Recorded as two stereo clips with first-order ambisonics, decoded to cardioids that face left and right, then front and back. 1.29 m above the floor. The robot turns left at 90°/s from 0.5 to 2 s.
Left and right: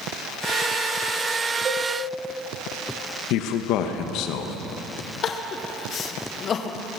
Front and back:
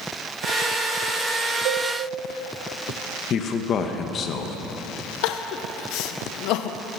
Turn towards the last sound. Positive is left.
turn(degrees=30)